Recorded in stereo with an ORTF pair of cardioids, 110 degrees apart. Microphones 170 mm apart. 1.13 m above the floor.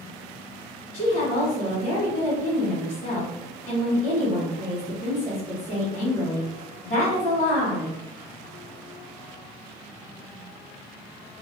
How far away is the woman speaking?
About 1.4 m.